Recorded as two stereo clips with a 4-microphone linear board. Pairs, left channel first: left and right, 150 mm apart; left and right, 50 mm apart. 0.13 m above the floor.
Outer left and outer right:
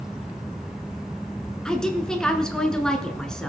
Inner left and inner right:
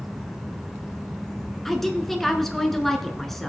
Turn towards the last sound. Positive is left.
turn(degrees=5)  # may be behind; listen again after turning